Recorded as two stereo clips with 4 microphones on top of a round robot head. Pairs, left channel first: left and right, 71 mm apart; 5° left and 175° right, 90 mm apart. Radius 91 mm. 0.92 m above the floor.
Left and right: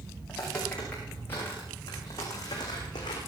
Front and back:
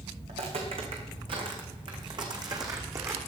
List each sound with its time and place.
0.3 s footsteps: 175° left, 4.5 m; by 3.2 s 125° left, 3.5 m